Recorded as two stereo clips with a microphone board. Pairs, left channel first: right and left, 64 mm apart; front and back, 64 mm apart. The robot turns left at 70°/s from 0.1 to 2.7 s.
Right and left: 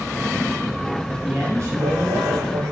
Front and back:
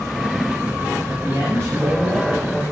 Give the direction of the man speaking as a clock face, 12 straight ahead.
7 o'clock.